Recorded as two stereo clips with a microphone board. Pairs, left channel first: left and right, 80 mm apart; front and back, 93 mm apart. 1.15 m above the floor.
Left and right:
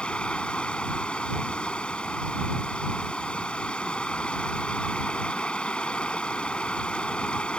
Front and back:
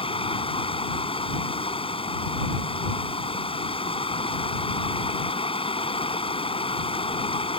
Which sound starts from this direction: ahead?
Running water, at 0.0 s.